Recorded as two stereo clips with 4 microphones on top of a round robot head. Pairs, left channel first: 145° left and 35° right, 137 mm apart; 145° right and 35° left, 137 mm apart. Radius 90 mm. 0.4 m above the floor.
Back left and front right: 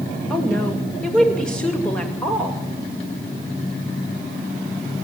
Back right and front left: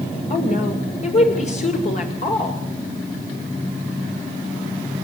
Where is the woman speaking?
135° right, 2 m.